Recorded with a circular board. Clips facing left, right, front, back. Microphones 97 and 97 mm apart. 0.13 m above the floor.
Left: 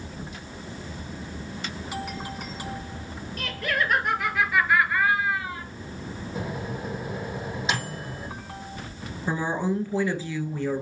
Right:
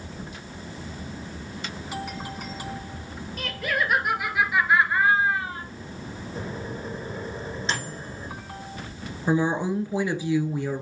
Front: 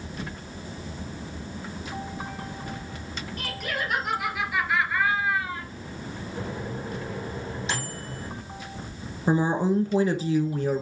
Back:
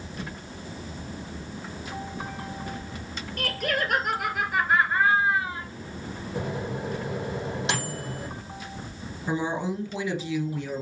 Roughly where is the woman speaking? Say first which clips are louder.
Right 3 dB, front 5 dB; ahead right.